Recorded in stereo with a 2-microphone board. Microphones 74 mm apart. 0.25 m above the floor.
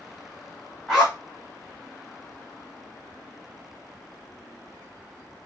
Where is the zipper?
Centre (ahead or behind), 1.4 m.